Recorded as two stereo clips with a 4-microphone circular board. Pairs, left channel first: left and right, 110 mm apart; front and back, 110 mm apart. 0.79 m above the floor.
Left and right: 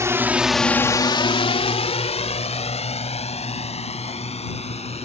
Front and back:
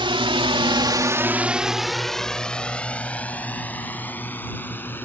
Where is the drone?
150° right; by 5.0 s 70° left.